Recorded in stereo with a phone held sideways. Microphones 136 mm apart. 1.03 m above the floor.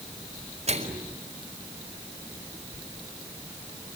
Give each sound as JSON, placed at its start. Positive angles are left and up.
{"t": 0.7, "sound": "a microwave", "side_deg": -55, "distance_m": 4.5}